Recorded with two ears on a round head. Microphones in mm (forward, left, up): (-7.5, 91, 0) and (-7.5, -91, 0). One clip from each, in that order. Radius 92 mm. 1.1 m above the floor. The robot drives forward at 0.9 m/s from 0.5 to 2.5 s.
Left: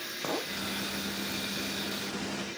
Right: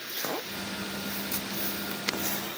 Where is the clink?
15° right (ahead or behind), 0.7 m.